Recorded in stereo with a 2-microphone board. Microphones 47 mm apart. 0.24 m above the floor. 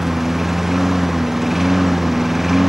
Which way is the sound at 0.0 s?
5° right (ahead or behind).